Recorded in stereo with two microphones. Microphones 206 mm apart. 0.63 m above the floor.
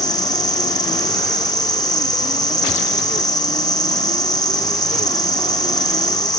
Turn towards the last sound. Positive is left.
turn(degrees=20)  # may be behind; listen again after turning